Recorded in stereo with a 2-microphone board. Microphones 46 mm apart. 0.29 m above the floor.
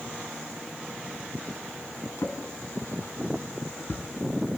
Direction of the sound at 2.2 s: 70° left (ahead or behind).